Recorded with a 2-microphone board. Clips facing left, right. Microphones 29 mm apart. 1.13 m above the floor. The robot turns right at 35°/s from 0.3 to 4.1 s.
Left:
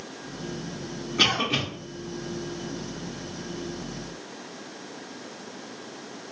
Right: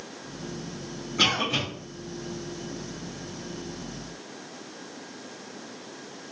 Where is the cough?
10° left (ahead or behind), 0.8 m; by 1.6 s 25° left (ahead or behind), 0.8 m.